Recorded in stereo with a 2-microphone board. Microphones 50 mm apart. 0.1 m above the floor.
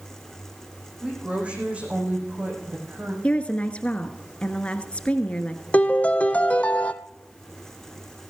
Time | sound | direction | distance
1.0 | a woman speaking | 25° right (ahead or behind) | 6 m
3.2 | a woman speaking | 25° left (ahead or behind) | 1.2 m
5.7 | a piano | 25° left (ahead or behind) | 0.7 m